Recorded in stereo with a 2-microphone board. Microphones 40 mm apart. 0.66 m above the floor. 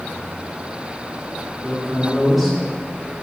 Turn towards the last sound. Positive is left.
turn(degrees=5)  # may be behind; listen again after turning